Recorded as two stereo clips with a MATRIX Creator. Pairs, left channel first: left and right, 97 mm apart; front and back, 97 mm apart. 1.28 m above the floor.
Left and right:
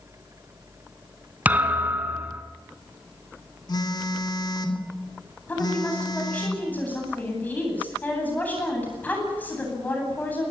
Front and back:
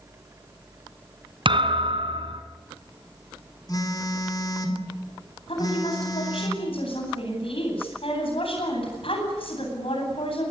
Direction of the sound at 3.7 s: 50° left.